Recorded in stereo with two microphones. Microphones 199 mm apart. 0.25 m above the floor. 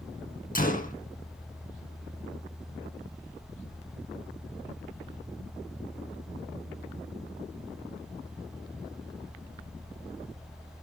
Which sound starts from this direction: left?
A gunshot, at 0.6 s.